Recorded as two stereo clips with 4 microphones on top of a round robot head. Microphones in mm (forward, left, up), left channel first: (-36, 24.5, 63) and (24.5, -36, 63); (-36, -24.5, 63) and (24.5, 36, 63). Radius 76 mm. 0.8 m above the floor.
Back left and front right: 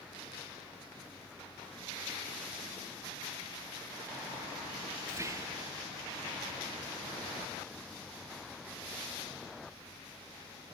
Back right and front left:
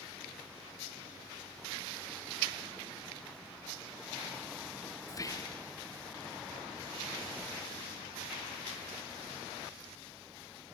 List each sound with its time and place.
5.1 s whispering: 95° right, 1.1 m